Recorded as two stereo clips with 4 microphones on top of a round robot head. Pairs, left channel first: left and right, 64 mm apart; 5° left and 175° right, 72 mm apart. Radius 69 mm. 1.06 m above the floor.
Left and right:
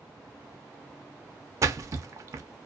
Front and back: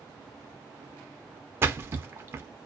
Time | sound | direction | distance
1.6 | a splash | 120° right | 0.5 m